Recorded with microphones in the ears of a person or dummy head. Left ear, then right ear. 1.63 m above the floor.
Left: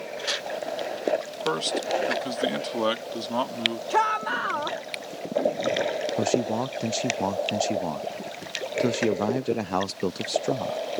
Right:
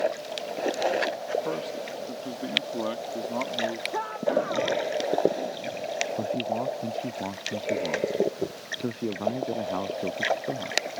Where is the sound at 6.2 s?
75° left (ahead or behind).